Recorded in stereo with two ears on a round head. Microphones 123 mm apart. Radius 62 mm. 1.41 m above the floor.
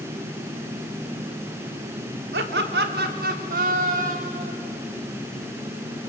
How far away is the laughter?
About 3.5 m.